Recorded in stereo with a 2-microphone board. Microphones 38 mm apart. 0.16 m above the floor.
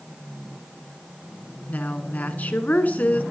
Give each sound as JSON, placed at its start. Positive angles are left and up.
{"t": 1.7, "sound": "a woman speaking", "side_deg": 45, "distance_m": 1.4}